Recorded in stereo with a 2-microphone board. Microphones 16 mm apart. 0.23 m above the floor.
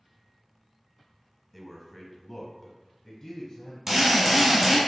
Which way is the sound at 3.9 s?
25° right (ahead or behind).